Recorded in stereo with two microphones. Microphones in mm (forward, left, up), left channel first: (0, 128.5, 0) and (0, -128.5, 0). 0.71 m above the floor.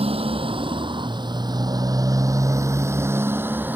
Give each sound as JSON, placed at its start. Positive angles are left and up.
{"t": 0.0, "sound": "a motorcycle", "side_deg": -20}